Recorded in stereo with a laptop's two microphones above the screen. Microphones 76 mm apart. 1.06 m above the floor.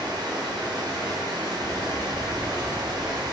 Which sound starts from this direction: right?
Running water, at 0.0 s.